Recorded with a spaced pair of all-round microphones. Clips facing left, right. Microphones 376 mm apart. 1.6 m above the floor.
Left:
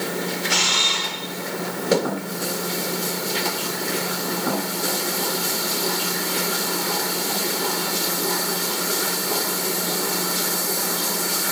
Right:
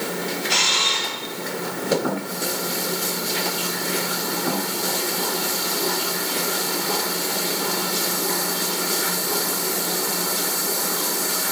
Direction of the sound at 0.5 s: 65° left (ahead or behind).